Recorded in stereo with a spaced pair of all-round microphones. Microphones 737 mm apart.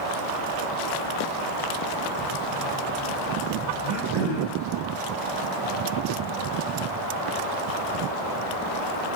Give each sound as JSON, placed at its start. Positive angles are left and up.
{"t": 3.8, "sound": "throat clearing", "side_deg": -5, "distance_m": 1.0}